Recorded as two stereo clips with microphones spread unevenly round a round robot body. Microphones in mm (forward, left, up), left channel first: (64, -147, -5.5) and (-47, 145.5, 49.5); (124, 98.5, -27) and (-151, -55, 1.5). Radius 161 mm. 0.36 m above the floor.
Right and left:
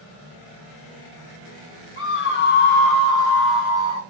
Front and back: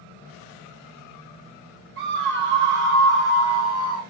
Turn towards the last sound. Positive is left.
turn(degrees=175)